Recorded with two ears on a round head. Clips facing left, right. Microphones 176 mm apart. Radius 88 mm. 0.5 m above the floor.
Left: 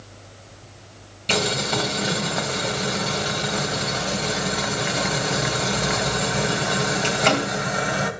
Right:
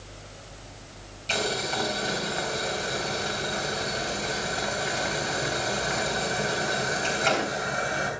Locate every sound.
1.3 s boiling: 70° left (ahead or behind), 3 m